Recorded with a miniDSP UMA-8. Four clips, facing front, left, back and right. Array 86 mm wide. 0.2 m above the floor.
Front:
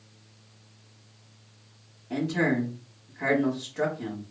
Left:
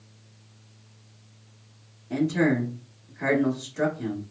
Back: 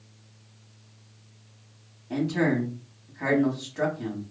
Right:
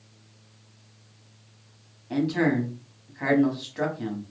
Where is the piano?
No piano in this recording.